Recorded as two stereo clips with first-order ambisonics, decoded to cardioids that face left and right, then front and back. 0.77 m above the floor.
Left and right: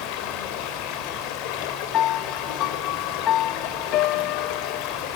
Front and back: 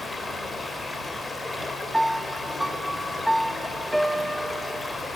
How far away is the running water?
About 3.5 m.